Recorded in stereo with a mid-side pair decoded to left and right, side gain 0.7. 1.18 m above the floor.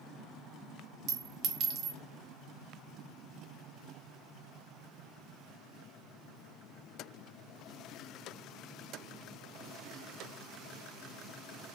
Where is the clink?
60° right, 0.8 m.